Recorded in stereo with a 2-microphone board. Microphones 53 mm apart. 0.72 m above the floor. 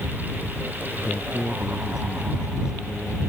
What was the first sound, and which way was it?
A man speaking, 70° left (ahead or behind).